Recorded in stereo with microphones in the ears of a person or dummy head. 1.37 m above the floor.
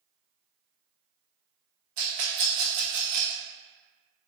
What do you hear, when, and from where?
2.0 s a rattle: 45° right (ahead or behind), 0.9 m